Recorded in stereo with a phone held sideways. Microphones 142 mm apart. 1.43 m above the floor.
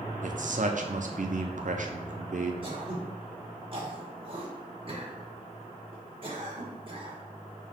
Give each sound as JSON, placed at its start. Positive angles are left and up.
{"t": 0.2, "sound": "a man speaking", "side_deg": -65, "distance_m": 0.7}
{"t": 2.6, "sound": "throat clearing", "side_deg": -40, "distance_m": 1.5}